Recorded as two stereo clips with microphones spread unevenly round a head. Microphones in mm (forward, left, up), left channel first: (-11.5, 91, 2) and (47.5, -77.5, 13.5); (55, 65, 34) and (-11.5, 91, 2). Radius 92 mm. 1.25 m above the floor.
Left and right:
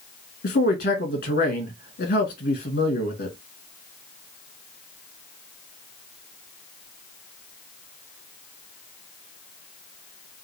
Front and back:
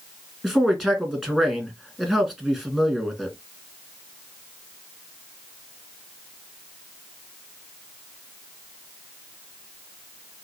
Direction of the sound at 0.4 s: 70° left.